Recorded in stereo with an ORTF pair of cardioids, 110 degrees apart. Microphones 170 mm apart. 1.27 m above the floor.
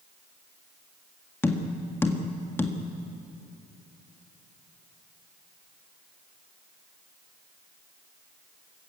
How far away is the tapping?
About 1.7 m.